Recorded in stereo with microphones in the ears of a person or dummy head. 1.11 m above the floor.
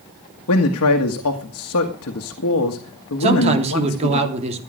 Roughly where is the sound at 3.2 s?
Right.